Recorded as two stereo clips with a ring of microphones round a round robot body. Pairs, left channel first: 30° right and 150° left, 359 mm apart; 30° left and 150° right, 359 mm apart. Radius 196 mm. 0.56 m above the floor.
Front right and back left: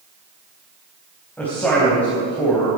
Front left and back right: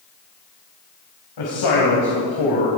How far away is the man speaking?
About 4 m.